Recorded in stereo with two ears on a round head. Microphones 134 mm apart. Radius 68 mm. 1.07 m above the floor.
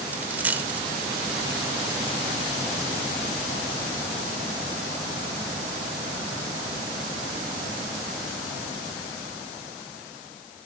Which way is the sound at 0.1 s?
10° right (ahead or behind).